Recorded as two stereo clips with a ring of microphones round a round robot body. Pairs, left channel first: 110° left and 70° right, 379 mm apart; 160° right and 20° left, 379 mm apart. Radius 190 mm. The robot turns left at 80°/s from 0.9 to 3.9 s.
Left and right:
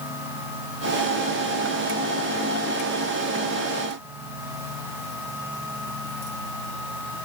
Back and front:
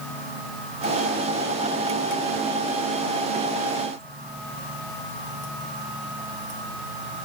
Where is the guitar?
No guitar in this recording.